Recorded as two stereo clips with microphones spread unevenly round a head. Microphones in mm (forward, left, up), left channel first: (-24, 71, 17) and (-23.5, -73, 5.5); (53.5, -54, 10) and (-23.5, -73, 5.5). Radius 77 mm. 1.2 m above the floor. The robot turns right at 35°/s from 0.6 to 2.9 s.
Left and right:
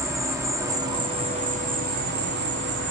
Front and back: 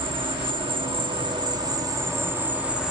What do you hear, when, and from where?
0.0 s an insect: 160° right, 1.1 m; by 2.9 s 80° right, 1.1 m